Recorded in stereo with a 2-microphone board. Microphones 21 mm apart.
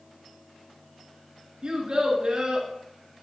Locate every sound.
1.6 s a child speaking: 40° right (ahead or behind), 2.5 m